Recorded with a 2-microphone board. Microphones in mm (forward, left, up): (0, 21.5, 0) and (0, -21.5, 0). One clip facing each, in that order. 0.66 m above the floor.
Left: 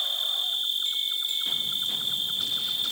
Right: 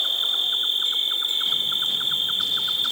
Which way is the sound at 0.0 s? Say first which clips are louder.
Right 5 dB; 50° right (ahead or behind).